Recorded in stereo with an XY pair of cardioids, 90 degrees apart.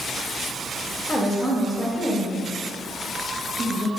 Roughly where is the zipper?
No zipper in this recording.